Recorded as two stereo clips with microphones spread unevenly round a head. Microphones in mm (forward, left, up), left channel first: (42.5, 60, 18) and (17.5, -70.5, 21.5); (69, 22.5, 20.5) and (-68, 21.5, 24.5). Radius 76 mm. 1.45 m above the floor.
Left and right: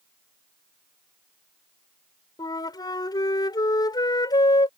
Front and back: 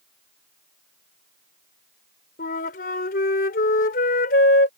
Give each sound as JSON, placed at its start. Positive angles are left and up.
{"t": 2.4, "sound": "a flute", "azimuth_deg": 20}